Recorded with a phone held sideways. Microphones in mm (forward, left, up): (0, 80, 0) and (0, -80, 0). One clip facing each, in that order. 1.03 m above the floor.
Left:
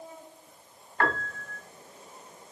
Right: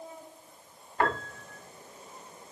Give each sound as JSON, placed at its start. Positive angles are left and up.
{"t": 1.0, "sound": "a piano", "side_deg": -20, "distance_m": 1.9}